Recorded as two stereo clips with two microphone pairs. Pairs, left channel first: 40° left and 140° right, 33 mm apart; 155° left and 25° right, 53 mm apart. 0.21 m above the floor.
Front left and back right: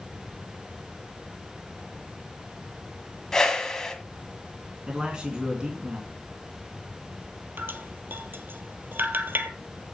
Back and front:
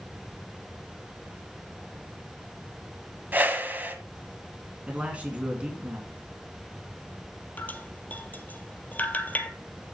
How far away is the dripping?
About 0.9 m.